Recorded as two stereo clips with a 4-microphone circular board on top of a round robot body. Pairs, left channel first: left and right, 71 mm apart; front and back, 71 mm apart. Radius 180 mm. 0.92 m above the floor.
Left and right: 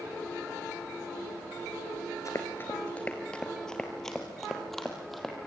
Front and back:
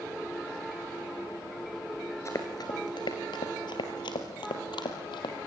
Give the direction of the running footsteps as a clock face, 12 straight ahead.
10 o'clock.